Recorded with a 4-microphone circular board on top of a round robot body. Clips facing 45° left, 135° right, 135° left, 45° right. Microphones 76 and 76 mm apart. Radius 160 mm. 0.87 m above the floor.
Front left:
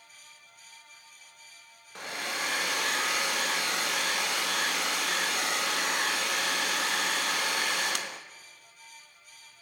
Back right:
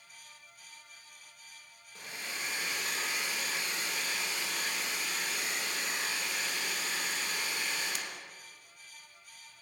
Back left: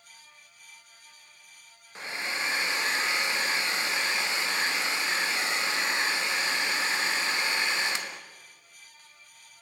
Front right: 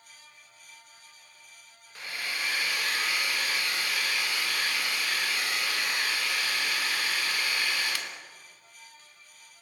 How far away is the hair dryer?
About 1.7 m.